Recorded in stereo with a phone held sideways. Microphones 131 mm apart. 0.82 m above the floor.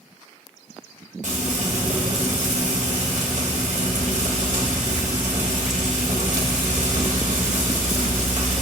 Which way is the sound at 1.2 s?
70° right (ahead or behind).